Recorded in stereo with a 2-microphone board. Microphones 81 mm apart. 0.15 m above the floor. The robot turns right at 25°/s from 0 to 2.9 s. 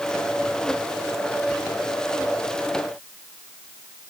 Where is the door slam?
I don't hear a door slam.